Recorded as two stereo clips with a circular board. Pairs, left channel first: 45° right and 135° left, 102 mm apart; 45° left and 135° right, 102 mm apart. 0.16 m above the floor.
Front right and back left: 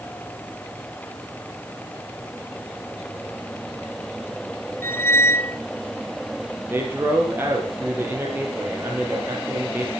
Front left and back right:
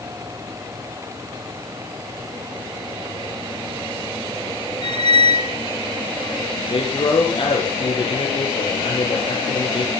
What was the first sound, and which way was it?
A squeak, 15° left.